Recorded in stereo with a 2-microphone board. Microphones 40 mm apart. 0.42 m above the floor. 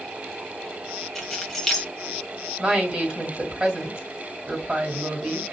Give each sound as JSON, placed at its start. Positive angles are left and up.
{"t": 1.1, "sound": "keys jangling", "side_deg": 10, "distance_m": 1.4}
{"t": 2.6, "sound": "a woman speaking", "side_deg": -20, "distance_m": 1.8}